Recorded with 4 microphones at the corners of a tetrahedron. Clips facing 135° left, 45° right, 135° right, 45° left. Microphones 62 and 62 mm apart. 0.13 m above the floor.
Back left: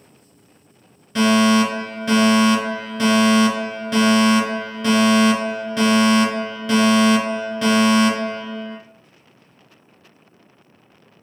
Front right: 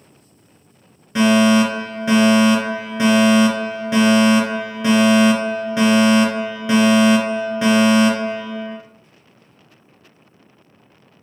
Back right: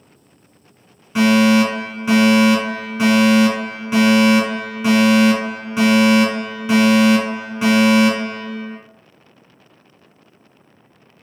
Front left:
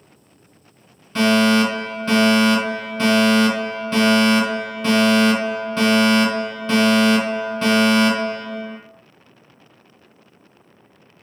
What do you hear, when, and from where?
1.1 s a fire alarm: 90° right, 2.0 m